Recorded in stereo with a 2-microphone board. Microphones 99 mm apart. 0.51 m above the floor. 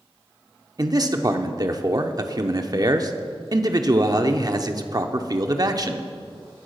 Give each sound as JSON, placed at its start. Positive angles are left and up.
{"t": 0.8, "sound": "a man speaking", "side_deg": -40, "distance_m": 0.8}